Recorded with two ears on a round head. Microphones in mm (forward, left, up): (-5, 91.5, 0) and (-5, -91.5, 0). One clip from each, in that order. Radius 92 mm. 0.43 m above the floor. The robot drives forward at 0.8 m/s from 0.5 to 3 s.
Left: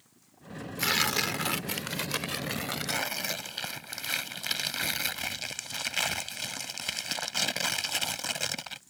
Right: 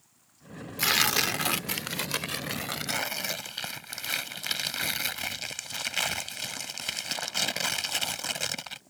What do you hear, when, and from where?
0.8 s tearing paper: 10° right (ahead or behind); by 8.8 s 5° right (ahead or behind)